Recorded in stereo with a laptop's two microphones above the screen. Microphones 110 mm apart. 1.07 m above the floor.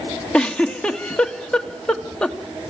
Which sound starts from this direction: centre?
A giggle, at 0.3 s.